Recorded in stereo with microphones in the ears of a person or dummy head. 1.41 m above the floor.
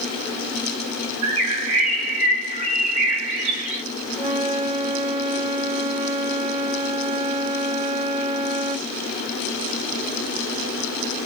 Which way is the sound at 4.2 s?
25° right (ahead or behind).